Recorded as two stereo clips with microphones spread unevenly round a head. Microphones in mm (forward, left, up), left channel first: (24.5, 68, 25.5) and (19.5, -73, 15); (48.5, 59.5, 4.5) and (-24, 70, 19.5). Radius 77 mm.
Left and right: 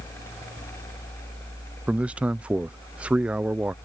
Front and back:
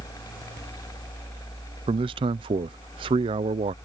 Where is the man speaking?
175° right.